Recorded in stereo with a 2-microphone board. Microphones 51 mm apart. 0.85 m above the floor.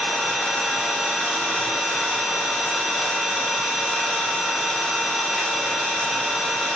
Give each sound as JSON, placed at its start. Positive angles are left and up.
{"t": 0.0, "sound": "an engine running", "side_deg": 5, "distance_m": 2.0}